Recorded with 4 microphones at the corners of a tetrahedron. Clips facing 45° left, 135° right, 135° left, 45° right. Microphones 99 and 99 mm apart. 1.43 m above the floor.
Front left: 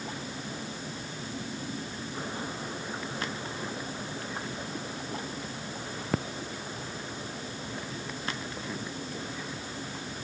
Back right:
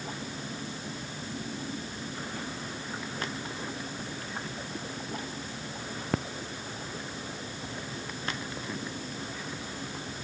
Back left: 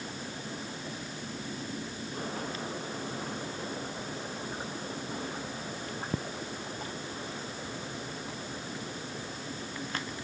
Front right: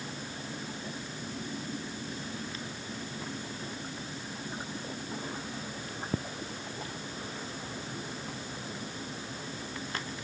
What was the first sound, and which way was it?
Only background noise.